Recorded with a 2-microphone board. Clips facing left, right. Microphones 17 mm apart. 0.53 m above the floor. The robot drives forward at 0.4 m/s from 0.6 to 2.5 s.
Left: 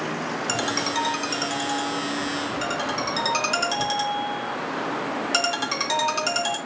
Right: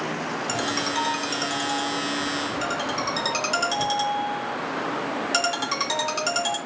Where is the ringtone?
25° left (ahead or behind), 0.5 m; by 6.6 s 10° left (ahead or behind), 1.2 m.